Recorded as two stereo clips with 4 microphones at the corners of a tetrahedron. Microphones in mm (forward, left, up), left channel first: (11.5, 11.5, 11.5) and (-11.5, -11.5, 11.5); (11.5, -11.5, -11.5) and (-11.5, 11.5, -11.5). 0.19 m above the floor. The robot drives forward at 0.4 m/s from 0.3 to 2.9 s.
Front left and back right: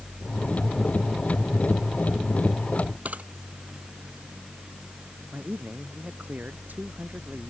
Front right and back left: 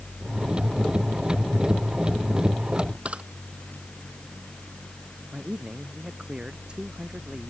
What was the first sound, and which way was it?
A camera shutter, 175° right.